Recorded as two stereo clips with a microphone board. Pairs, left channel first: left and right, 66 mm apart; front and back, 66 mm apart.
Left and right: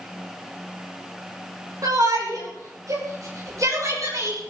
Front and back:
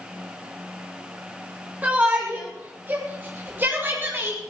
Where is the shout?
110° right, 6 m; by 4.4 s 125° right, 8 m.